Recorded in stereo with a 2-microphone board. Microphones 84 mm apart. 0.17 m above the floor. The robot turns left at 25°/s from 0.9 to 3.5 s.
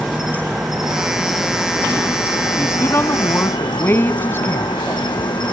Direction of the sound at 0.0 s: 175° right.